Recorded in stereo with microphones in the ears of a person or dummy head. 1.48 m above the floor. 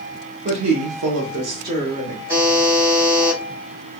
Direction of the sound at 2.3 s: 15° right (ahead or behind).